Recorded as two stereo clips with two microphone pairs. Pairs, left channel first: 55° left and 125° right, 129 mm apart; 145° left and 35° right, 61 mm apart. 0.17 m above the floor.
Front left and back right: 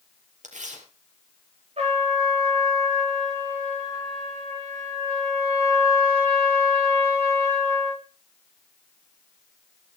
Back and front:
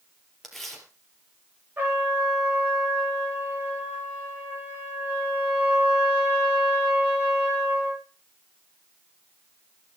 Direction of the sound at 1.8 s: 90° right.